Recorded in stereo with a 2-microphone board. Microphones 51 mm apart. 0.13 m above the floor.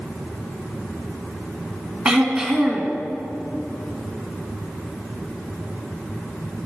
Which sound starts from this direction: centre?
Throat clearing, at 2.0 s.